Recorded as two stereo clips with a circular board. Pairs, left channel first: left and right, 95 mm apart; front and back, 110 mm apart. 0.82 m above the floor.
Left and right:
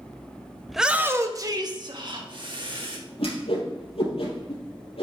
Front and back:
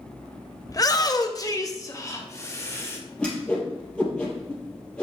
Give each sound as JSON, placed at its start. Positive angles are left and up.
{"t": 0.7, "sound": "a shout", "azimuth_deg": 5, "distance_m": 0.8}
{"t": 3.2, "sound": "a whoosh", "azimuth_deg": 80, "distance_m": 4.0}